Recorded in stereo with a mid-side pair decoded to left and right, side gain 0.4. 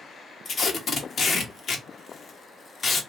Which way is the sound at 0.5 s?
55° left.